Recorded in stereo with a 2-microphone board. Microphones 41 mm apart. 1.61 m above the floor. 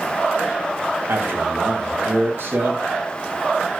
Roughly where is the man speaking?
Right.